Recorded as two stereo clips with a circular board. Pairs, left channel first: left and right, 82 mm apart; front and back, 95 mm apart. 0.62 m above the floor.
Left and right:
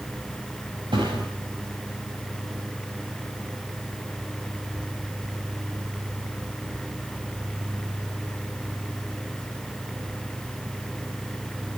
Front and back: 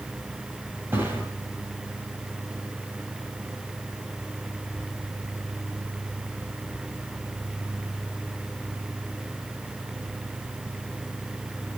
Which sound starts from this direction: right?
A thud, at 0.9 s.